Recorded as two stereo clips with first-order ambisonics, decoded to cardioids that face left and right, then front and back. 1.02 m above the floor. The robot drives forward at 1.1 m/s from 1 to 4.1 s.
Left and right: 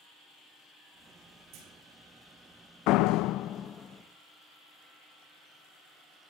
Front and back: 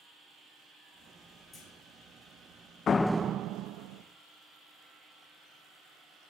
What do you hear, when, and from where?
1.5 s a clunk: 70° right, 7 m; by 1.7 s 75° right, 7 m
2.9 s a door slam: 60° left, 0.5 m; by 4.0 s 160° left, 1.2 m